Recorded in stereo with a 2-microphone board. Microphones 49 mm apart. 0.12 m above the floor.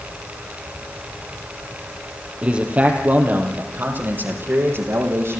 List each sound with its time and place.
2.4 s a man speaking: 25° right (ahead or behind), 4 m; by 5.4 s 60° right (ahead or behind), 6.5 m